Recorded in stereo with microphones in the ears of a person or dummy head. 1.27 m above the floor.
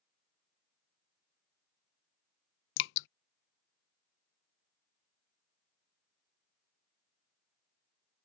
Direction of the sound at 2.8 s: 70° left (ahead or behind).